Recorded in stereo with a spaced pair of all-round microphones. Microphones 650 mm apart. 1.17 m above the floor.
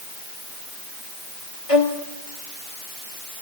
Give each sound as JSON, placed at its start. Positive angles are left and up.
{"t": 1.7, "sound": "a violin", "side_deg": 50, "distance_m": 2.5}